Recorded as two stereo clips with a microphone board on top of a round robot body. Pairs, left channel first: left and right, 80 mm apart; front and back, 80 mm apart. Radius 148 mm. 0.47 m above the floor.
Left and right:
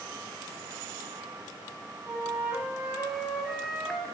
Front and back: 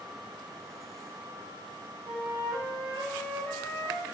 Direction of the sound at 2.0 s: 165° right.